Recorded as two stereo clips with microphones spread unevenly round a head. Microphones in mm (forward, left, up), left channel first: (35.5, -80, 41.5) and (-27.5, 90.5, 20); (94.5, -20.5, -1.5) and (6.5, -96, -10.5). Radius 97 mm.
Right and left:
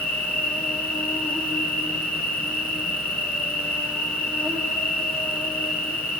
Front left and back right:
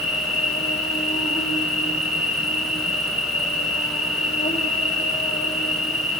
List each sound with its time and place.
0.0 s an insect: 15° left, 3 m